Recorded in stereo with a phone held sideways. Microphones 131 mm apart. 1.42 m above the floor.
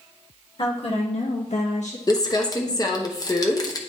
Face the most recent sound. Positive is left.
turn(degrees=30)  # may be behind; listen again after turning